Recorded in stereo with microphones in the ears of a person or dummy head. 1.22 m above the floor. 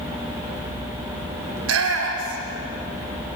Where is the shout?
80° right, 4 m; by 2.6 s 70° right (ahead or behind), 5 m.